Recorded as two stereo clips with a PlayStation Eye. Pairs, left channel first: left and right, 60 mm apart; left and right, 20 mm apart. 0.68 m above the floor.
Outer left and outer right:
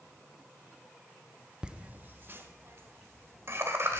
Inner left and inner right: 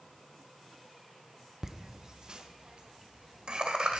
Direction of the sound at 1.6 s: 15° right (ahead or behind).